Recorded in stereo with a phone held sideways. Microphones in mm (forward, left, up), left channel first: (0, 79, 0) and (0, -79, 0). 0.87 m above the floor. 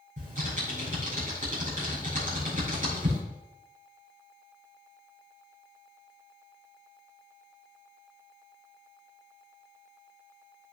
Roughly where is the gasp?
No gasp in this recording.